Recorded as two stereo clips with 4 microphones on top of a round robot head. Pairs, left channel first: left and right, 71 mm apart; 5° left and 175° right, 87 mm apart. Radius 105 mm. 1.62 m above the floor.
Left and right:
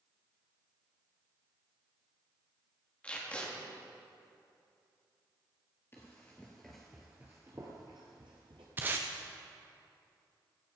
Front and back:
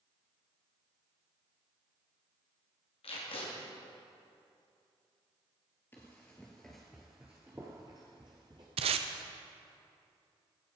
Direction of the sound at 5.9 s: 55° left.